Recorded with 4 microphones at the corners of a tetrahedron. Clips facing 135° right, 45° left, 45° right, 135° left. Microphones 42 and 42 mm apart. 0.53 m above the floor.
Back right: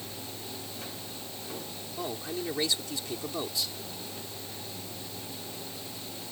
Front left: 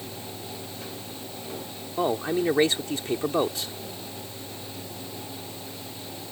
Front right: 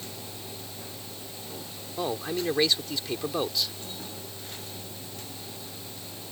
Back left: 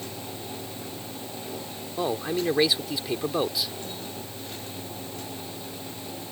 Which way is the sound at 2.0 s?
60° left.